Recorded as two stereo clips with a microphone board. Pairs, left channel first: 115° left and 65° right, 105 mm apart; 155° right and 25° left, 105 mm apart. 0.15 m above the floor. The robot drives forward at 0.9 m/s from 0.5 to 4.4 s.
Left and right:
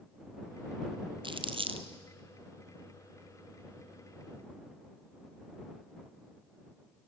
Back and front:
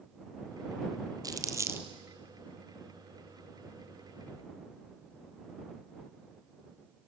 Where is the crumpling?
30° right, 1.5 m; by 1.9 s 45° right, 1.1 m.